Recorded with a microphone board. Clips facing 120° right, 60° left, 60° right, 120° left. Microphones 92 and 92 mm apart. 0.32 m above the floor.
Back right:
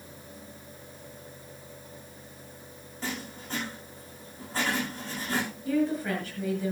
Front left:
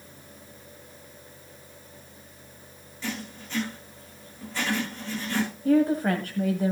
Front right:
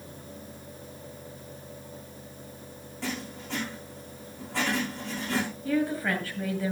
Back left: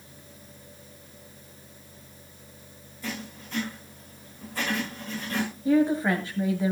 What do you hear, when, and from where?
3.0 s writing: 70° right, 7.5 m
5.7 s a woman speaking: 60° left, 2 m